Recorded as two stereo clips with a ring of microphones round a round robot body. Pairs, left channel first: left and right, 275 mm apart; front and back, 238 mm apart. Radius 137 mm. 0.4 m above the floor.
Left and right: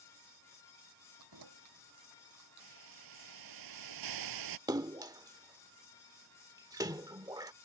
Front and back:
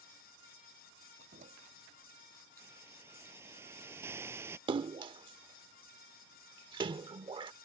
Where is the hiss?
100° right.